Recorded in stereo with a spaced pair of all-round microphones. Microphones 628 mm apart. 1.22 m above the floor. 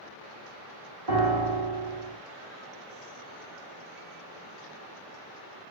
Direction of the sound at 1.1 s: 65° right (ahead or behind).